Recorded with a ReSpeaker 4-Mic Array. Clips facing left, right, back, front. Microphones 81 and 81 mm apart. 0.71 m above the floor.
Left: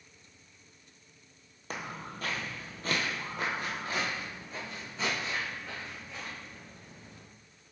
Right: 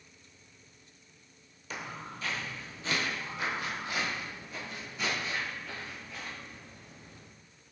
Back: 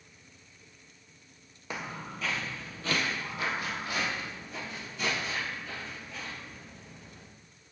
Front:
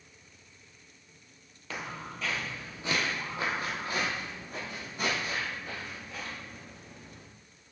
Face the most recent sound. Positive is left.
turn(degrees=25)